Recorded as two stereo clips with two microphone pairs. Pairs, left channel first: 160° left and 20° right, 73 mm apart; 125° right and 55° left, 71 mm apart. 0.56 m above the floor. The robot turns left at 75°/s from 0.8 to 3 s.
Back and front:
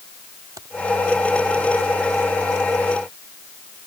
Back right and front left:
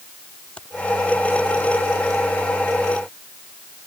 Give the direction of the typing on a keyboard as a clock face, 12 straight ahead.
2 o'clock.